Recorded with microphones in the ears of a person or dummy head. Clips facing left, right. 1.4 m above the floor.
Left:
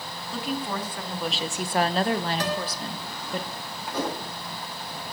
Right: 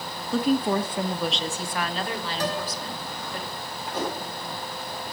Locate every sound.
0.3 s a woman speaking: 45° right (ahead or behind), 1.2 m; by 3.4 s 70° left (ahead or behind), 2 m
2.4 s a guitar: 70° left (ahead or behind), 4.5 m
3.9 s a whoosh: 75° left (ahead or behind), 3.5 m